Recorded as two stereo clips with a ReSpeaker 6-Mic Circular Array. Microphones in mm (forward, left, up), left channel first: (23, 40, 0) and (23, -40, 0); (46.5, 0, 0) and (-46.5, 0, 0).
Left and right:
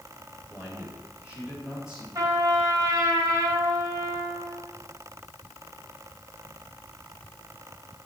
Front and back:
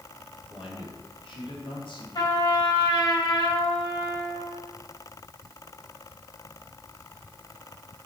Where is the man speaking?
20° right, 5 m; by 2.0 s 5° right, 4.5 m.